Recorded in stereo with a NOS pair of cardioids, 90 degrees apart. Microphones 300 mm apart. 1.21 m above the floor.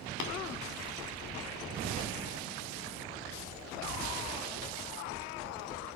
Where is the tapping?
70° left, 2 m.